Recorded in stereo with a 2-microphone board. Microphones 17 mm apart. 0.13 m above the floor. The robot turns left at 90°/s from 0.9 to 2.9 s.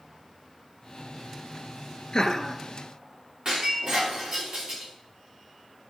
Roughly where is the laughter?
Ahead left.